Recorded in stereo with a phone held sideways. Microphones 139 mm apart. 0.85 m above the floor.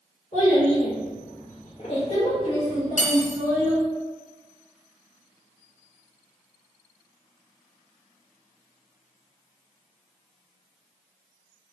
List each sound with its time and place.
0.3 s a child speaking: 45° left (ahead or behind), 0.8 m; by 3.8 s 20° left (ahead or behind), 1.7 m
3.0 s cutlery clinking: 65° left (ahead or behind), 0.6 m